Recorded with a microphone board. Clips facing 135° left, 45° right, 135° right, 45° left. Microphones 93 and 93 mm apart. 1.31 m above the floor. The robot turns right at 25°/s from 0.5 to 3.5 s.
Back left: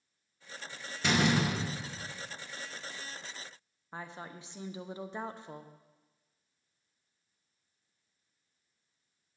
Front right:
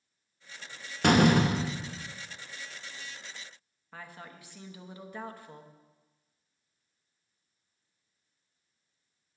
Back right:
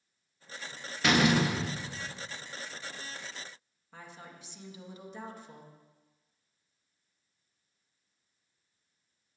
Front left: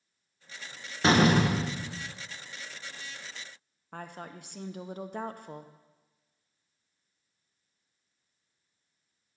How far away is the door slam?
About 0.6 m.